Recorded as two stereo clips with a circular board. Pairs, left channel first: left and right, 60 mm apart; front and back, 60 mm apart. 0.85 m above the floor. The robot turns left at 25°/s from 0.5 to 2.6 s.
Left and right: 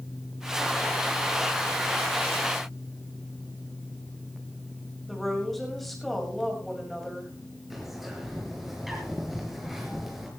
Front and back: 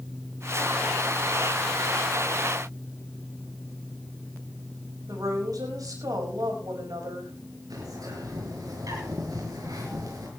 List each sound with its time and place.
5.1 s a woman speaking: straight behind, 6 m
7.7 s a bird: 175° right, 6 m